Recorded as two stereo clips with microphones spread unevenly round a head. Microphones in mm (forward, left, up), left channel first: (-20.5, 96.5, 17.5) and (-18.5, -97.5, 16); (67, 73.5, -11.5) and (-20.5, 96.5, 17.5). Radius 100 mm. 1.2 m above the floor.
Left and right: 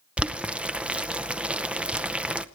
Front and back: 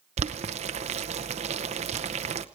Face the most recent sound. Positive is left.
turn(degrees=-175)